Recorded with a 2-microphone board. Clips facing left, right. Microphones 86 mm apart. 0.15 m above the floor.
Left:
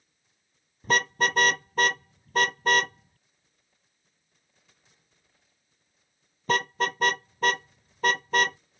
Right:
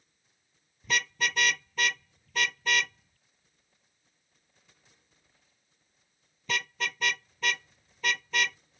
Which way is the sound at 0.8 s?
45° left (ahead or behind).